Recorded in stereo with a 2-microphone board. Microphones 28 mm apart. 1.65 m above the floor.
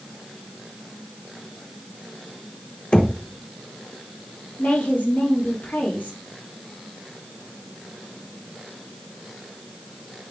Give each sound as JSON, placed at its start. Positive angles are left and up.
{"t": 2.9, "sound": "knocking", "side_deg": 40, "distance_m": 1.0}
{"t": 4.6, "sound": "a woman speaking", "side_deg": 80, "distance_m": 3.0}